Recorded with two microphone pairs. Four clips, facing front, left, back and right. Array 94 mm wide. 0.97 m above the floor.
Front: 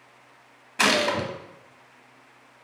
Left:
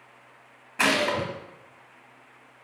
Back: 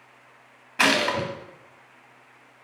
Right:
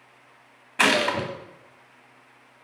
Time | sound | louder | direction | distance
0.8 | a gunshot | right 2 dB, even | 100° right | 0.8 m